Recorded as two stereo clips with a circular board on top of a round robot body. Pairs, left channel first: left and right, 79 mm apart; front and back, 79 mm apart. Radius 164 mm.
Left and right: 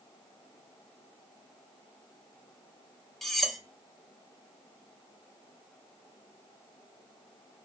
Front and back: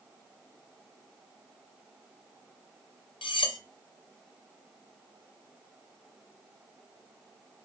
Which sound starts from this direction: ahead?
Cutlery clinking, at 3.2 s.